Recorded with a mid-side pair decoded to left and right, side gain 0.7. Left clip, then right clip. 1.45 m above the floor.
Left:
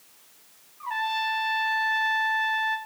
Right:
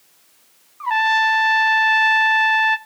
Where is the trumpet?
45° right, 0.6 m.